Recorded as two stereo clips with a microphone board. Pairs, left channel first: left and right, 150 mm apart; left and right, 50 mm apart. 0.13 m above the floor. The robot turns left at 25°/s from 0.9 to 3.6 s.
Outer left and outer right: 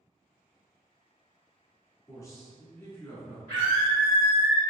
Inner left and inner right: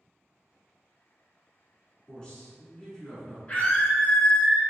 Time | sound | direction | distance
2.1 | a man speaking | 20° left (ahead or behind) | 1.1 m
3.5 | a scream | 20° left (ahead or behind) | 1.5 m